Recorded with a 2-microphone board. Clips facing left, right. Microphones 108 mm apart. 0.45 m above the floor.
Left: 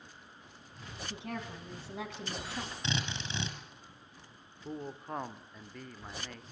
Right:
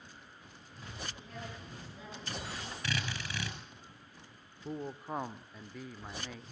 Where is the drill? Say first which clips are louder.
Right 1 dB; 25° left (ahead or behind), 5.5 m.